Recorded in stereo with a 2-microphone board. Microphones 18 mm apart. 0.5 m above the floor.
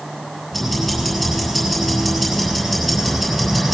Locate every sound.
0.5 s ticking: centre (ahead or behind), 6.5 m